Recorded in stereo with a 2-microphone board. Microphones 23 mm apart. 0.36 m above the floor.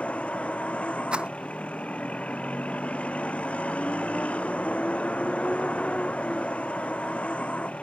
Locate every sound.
0.0 s a vehicle: 60° left (ahead or behind)
1.1 s a rattle: 45° right (ahead or behind)